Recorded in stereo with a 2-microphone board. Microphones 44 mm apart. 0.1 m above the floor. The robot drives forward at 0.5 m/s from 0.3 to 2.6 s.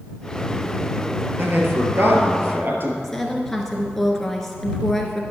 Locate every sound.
1.4 s a man speaking: 50° right (ahead or behind), 1.9 m
3.0 s a woman speaking: 10° left (ahead or behind), 1.5 m